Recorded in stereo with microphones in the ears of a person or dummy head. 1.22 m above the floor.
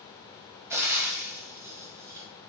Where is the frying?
10° right (ahead or behind), 0.8 m.